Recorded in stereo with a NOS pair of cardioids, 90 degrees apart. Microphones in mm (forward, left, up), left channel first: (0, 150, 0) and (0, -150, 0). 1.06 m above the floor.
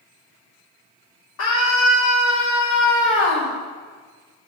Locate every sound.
1.4 s a scream: 70° left, 3 m